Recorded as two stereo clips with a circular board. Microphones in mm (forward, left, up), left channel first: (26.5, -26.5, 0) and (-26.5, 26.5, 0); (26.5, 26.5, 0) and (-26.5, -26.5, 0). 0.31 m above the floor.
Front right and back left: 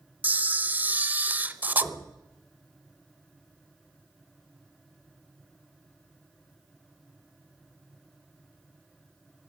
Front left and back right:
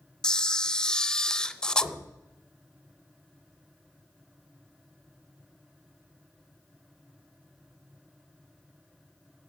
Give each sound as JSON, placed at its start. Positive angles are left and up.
{"t": 0.2, "sound": "a camera shutter", "azimuth_deg": 110, "distance_m": 0.6}
{"t": 1.8, "sound": "knocking", "azimuth_deg": 15, "distance_m": 4.5}